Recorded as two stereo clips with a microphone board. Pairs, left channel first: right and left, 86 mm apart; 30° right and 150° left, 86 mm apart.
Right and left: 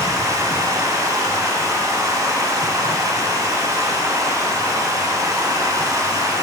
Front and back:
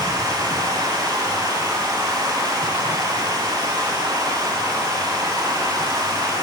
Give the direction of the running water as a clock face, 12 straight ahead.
8 o'clock.